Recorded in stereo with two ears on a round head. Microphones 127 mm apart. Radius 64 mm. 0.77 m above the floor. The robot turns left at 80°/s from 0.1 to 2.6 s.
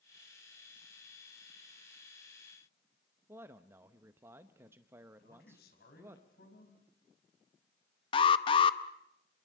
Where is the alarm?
35° left (ahead or behind), 0.8 m.